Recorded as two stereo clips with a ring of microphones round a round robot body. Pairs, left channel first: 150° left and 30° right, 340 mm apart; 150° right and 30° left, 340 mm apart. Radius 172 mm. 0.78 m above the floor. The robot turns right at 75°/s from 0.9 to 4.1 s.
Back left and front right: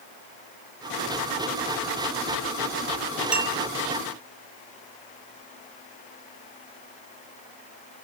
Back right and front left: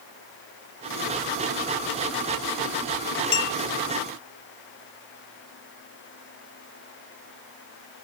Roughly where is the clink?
Behind right.